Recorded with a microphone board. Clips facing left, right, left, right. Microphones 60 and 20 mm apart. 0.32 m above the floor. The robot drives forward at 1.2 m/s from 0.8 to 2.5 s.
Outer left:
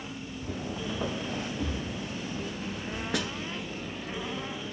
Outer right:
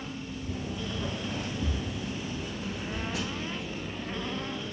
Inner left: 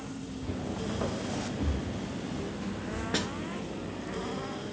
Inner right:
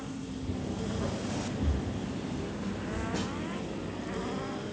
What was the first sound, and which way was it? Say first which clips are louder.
Footsteps: outer left 2 dB, inner left 1 dB; 65° left (ahead or behind).